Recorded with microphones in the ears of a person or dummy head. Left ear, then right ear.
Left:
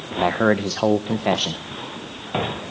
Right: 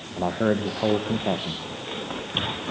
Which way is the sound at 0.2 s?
70° left (ahead or behind).